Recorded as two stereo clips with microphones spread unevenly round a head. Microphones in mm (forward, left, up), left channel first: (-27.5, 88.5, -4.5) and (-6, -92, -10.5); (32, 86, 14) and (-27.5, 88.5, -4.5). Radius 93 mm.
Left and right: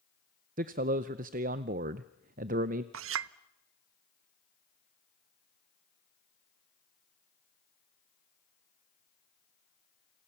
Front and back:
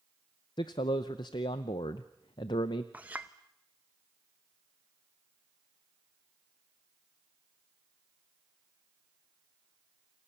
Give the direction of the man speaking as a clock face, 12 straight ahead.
1 o'clock.